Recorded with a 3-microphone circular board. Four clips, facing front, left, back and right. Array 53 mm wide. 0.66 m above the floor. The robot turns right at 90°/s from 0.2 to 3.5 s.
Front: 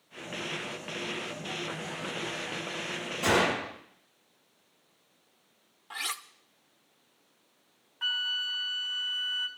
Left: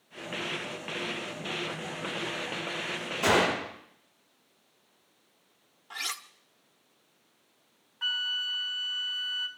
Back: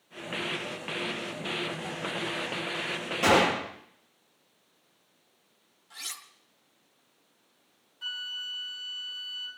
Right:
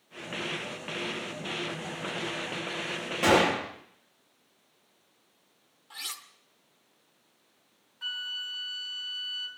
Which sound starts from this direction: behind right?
A gunshot, at 3.2 s.